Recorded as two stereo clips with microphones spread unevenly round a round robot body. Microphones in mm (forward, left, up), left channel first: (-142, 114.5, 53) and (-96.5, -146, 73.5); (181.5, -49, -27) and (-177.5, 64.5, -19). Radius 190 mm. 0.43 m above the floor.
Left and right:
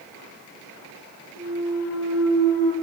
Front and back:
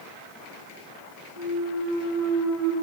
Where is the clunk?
110° left, 4 m.